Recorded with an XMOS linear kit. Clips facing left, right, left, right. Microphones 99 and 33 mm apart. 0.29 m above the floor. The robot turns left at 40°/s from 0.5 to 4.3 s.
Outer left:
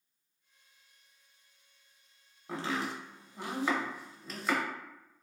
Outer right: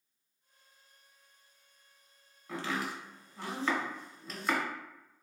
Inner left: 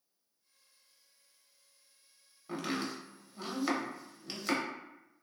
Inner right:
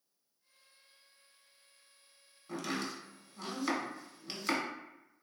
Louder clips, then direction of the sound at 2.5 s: Outer left 1 dB, inner left 2 dB; 30° left (ahead or behind).